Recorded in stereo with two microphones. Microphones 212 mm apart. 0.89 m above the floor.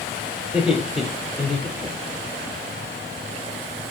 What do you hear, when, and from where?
0.4 s laughter: 5° right (ahead or behind), 3.5 m